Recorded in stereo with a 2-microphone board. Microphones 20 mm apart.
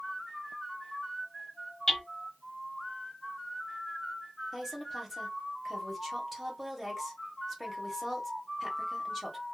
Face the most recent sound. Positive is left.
turn(degrees=0)  # may be behind; listen again after turning